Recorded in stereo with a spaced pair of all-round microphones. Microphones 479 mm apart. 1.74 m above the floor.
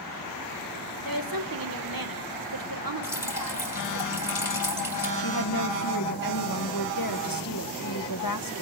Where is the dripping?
50° left (ahead or behind), 4 m.